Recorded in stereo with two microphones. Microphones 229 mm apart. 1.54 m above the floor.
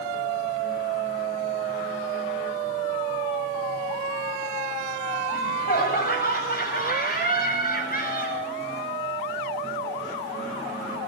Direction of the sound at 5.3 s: 40° left (ahead or behind).